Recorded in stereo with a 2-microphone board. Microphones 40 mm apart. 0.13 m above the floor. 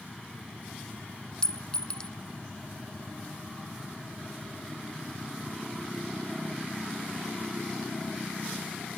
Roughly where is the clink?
Centre.